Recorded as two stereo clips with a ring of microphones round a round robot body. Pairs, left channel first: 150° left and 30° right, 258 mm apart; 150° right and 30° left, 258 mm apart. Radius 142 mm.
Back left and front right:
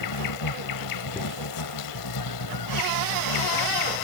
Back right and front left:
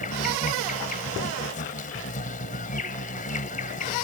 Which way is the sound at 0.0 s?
150° left.